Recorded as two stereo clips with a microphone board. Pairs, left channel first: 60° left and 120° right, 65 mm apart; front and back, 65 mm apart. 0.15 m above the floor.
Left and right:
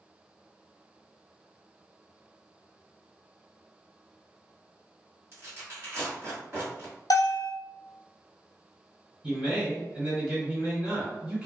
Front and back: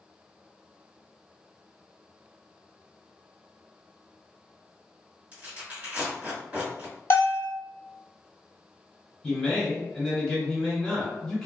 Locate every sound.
5.3 s tearing paper: 130° right, 1.9 m
7.1 s a bell: 50° left, 0.7 m
9.2 s a man speaking: 80° right, 1.8 m